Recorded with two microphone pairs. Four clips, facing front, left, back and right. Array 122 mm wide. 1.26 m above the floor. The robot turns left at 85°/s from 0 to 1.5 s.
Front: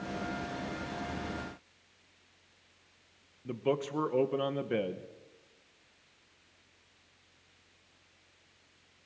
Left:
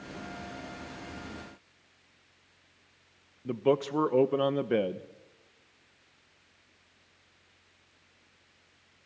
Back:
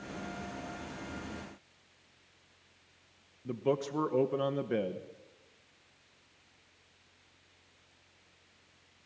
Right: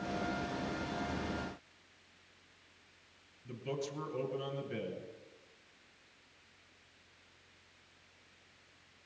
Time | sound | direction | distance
3.5 | a man speaking | 85° left | 0.8 m